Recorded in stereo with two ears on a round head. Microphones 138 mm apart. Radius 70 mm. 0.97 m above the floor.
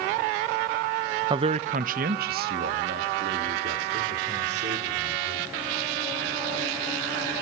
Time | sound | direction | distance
1.3 | a man speaking | 30° right (ahead or behind) | 0.5 m